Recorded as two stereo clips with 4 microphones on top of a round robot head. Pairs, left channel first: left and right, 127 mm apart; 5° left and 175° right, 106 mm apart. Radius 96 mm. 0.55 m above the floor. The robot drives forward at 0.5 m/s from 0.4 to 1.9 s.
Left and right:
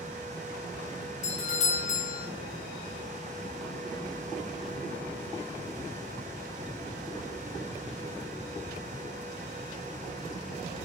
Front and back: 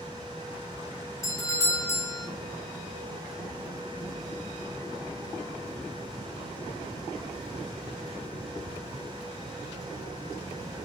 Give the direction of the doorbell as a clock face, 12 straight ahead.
10 o'clock.